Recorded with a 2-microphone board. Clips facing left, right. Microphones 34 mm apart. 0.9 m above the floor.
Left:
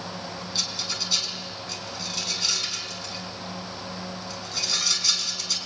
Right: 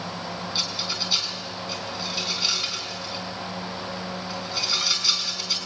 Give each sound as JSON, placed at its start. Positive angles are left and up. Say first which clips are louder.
{"t": 0.6, "sound": "a rattle", "louder": "right 1 dB", "side_deg": -20, "distance_m": 4.0}